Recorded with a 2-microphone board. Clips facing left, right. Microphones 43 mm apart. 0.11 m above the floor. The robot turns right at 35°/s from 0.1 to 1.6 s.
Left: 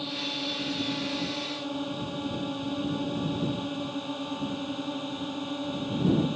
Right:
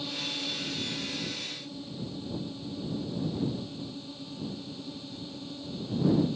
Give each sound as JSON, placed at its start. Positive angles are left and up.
{"t": 0.0, "sound": "a drone", "side_deg": 20}